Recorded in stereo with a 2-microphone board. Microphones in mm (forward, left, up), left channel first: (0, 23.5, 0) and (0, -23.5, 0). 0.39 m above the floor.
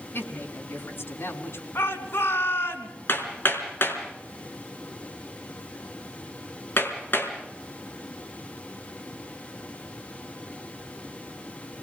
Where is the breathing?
I don't hear breathing.